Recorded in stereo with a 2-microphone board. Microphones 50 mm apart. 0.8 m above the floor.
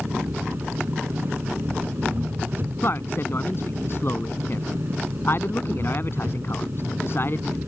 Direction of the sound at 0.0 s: 45° right (ahead or behind).